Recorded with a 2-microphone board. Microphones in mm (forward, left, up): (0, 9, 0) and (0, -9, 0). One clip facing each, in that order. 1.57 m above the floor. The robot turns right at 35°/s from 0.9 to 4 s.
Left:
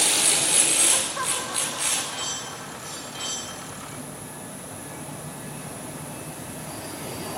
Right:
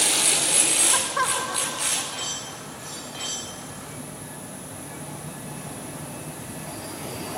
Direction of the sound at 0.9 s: 40° right.